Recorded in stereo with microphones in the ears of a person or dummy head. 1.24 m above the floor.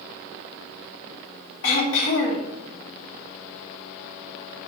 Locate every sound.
1.6 s throat clearing: 75° left (ahead or behind), 2.5 m